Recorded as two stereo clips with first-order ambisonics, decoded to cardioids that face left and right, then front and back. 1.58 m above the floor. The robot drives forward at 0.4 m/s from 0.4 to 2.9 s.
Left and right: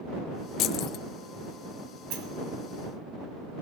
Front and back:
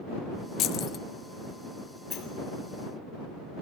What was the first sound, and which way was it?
Keys jangling, 45° left.